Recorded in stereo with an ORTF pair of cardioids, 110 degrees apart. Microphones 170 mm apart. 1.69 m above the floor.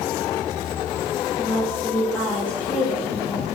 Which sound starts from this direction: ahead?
A woman speaking, at 1.4 s.